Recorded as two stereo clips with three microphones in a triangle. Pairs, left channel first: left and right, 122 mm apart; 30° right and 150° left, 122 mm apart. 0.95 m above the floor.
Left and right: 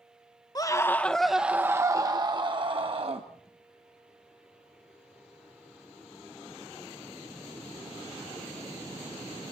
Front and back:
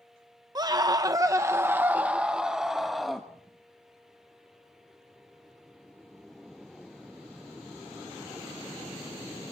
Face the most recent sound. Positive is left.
turn(degrees=-120)